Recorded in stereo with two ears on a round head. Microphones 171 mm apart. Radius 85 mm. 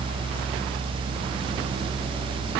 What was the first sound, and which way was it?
Only background noise.